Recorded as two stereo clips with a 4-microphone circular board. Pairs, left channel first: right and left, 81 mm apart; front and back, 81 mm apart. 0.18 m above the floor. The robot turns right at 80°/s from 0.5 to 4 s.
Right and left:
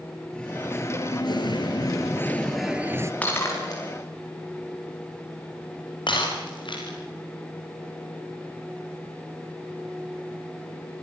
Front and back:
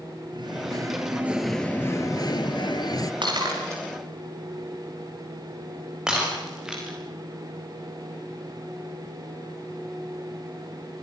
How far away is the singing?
About 1.6 m.